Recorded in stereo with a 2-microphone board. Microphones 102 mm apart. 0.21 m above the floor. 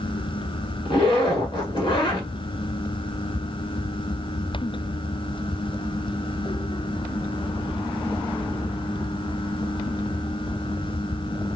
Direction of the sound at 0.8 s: 50° left (ahead or behind).